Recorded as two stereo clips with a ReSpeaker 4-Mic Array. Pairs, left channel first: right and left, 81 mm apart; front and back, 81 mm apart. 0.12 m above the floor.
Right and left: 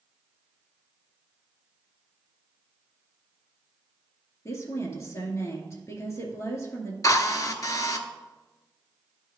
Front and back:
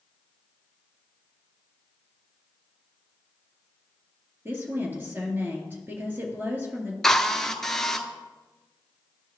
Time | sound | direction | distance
4.5 | a woman speaking | 125° right | 2 m
7.0 | a drill | 85° right | 0.7 m